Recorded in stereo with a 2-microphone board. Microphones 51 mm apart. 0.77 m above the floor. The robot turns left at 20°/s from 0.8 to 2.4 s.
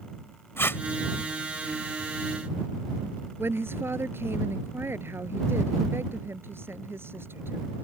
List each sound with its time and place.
0.6 s tape being pulled: 50° left (ahead or behind)
3.4 s a woman speaking: 50° right (ahead or behind)